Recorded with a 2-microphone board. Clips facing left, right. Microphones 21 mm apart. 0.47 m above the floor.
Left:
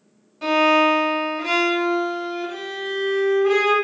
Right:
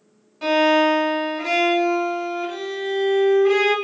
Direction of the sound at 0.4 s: 10° right (ahead or behind).